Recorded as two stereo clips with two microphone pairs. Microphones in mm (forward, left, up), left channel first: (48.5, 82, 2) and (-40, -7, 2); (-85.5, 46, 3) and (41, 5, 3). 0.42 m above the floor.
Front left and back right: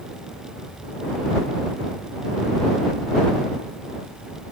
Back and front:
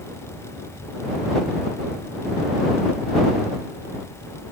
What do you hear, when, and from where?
Only background noise.